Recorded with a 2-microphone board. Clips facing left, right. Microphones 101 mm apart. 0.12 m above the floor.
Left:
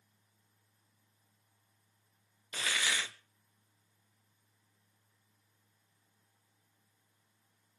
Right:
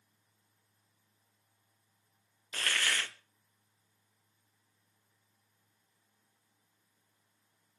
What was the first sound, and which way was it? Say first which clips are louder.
A hiss: right 1 dB; 5° left (ahead or behind).